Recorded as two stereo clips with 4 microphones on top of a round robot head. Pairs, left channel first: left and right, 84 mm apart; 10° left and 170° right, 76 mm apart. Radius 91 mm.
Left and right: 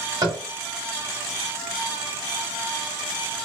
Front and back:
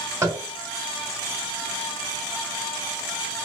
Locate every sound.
0.2 s tapping: 130° right, 1.3 m